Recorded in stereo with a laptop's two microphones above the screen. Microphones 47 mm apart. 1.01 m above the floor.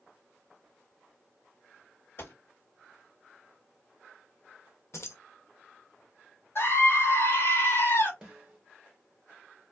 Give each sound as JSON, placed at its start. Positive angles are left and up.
{"t": 2.2, "sound": "a gunshot", "side_deg": 55, "distance_m": 1.4}
{"t": 4.9, "sound": "keys jangling", "side_deg": 65, "distance_m": 0.6}
{"t": 6.5, "sound": "a scream", "side_deg": 55, "distance_m": 0.9}
{"t": 8.2, "sound": "a snare drum", "side_deg": -15, "distance_m": 1.1}